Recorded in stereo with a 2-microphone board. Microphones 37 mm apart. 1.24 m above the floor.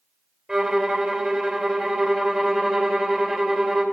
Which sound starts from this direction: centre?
A violin, at 0.5 s.